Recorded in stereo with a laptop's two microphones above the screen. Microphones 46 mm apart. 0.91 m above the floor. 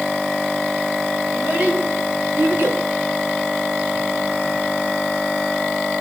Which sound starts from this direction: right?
A child speaking, at 1.3 s.